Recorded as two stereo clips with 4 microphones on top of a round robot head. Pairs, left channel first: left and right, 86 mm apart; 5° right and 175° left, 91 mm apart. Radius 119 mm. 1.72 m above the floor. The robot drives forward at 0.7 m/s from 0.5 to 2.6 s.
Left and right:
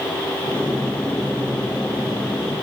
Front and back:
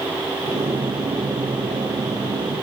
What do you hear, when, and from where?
Only background noise.